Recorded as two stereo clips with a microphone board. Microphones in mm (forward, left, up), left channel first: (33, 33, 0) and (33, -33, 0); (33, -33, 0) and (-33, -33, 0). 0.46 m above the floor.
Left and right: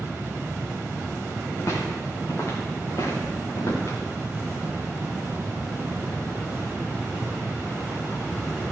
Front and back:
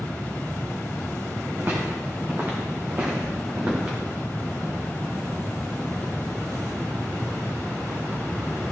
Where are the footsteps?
125° left, 4.5 m; by 4.0 s 110° left, 3.5 m.